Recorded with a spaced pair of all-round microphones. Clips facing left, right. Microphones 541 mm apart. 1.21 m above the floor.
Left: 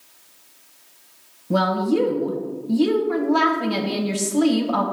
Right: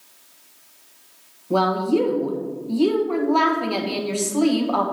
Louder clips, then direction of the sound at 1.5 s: Right 1 dB; 40° left (ahead or behind).